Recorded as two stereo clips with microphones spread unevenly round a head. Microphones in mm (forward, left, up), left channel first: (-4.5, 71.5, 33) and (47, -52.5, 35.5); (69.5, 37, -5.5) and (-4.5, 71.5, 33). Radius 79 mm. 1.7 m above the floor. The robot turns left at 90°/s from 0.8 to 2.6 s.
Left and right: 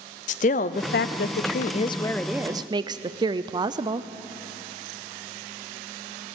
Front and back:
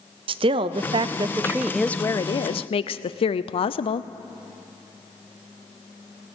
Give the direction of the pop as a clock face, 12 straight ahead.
I don't hear a pop.